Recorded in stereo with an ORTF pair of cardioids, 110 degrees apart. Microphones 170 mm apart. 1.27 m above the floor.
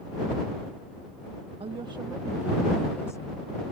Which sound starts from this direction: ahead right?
A woman speaking, at 1.6 s.